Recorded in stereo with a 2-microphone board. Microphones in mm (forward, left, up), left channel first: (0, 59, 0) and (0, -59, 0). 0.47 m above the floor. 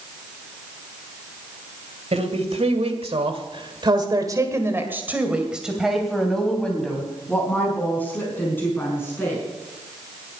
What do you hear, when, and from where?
2.1 s a woman speaking: 65° right (ahead or behind), 2.5 m; by 9.4 s 20° left (ahead or behind), 5.5 m